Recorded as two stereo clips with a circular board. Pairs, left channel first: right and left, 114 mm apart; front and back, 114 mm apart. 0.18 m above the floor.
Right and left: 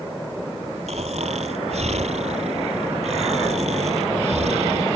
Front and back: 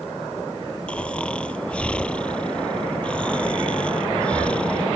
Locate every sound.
0.9 s snoring: 80° left